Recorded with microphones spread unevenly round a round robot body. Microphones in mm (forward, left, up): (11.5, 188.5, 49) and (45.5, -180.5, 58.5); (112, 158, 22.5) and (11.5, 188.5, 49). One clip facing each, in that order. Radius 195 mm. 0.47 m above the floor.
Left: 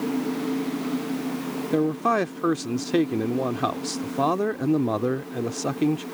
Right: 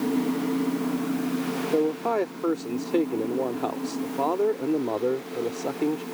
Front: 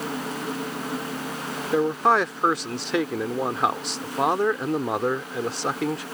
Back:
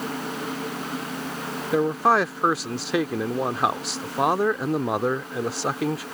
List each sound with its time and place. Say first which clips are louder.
1.7 s a man speaking: left 1 dB, even; 65° left